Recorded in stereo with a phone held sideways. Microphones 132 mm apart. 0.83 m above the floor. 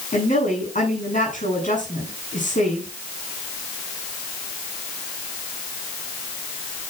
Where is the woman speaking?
75° left (ahead or behind), 7.5 m.